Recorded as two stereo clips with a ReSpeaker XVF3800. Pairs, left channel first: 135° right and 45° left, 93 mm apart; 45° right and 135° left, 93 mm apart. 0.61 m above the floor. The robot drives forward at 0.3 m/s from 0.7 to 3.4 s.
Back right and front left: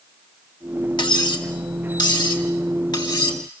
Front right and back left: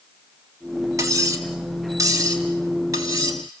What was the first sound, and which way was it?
Cutlery clinking, 170° right.